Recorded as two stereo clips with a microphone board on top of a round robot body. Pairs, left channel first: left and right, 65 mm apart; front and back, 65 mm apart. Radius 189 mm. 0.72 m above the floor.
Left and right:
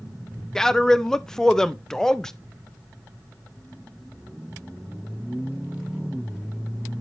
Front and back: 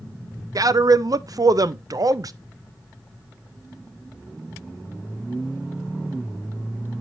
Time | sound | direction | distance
0.6 | a man speaking | 170° left | 0.6 m